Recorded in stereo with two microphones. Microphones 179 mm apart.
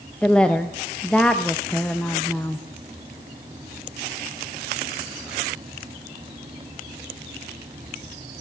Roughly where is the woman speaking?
Centre.